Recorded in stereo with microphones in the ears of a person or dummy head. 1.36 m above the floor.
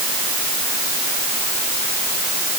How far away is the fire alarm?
No fire alarm in this recording.